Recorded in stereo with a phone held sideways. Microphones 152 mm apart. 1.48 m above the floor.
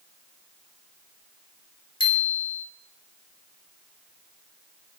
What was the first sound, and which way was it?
A bicycle bell, 30° left (ahead or behind).